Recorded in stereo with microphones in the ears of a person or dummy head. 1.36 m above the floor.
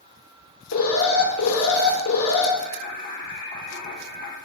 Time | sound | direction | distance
0.7 | an alarm | 75° left (ahead or behind) | 1.3 m
2.6 | singing | 45° left (ahead or behind) | 0.8 m